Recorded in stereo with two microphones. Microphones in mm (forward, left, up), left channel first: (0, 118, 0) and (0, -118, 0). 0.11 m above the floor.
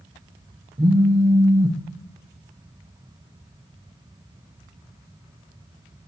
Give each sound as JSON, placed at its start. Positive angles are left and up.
{"t": 0.8, "sound": "a phone buzzing", "side_deg": -30, "distance_m": 1.2}